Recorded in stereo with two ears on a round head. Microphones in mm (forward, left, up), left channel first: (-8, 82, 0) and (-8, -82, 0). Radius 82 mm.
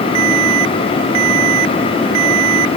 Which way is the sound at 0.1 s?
85° right.